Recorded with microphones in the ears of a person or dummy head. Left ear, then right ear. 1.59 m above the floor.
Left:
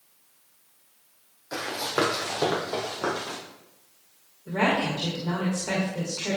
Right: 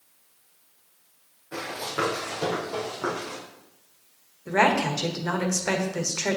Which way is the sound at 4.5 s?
60° right (ahead or behind).